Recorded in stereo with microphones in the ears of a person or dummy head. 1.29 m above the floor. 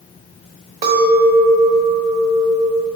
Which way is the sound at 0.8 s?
50° right (ahead or behind).